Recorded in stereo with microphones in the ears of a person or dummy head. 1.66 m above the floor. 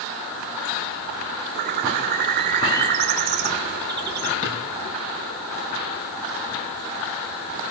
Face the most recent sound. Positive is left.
turn(degrees=80)